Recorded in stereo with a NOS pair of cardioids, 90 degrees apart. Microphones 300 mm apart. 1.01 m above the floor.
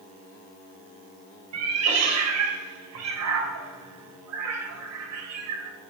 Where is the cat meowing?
60° right, 0.9 m.